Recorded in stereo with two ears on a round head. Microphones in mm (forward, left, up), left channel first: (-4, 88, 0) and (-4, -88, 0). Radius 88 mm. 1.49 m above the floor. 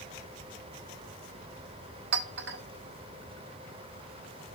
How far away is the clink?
About 2.0 m.